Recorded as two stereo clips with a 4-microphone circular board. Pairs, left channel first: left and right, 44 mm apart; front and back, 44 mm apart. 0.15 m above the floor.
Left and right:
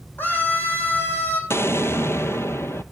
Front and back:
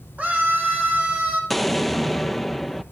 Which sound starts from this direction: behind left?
A scream, at 0.2 s.